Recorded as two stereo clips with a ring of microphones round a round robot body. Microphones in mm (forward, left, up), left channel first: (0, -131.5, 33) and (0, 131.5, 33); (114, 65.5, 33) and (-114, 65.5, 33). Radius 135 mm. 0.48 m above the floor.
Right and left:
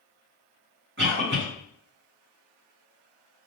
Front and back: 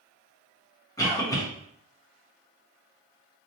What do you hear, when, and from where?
1.0 s a cough: 70° left, 1.3 m